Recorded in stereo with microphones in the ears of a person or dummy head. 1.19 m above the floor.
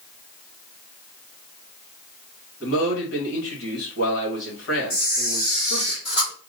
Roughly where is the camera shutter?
Left.